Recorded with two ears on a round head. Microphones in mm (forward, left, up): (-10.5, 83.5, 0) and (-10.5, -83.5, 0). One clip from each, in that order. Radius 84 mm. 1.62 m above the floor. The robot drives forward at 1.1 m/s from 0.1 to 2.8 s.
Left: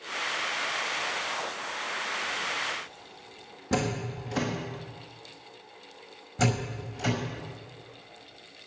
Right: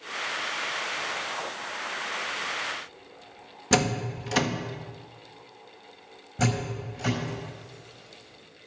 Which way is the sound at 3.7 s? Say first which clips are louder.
Right 5 dB; 65° right (ahead or behind).